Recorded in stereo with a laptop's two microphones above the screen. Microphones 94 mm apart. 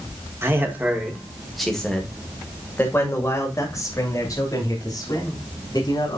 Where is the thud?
I don't hear a thud.